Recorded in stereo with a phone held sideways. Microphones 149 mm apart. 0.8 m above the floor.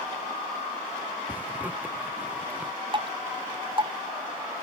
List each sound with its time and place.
1.3 s a zipper: 10° right (ahead or behind)
2.9 s dripping: 35° right (ahead or behind)